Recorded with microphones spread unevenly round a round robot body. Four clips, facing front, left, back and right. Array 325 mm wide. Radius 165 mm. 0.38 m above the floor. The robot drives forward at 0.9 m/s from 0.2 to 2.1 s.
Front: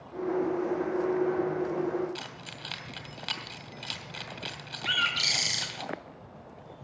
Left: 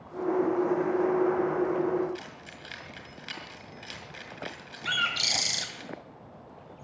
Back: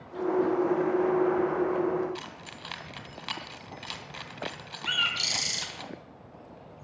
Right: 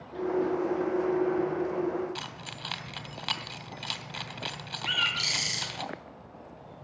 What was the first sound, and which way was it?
Keys jangling, 85° right.